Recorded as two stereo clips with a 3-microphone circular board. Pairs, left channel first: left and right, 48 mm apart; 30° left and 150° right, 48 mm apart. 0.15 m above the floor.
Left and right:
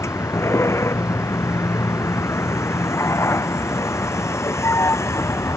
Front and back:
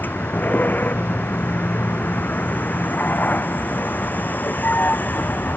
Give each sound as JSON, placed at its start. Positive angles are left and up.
{"t": 0.0, "sound": "a vehicle", "azimuth_deg": 80}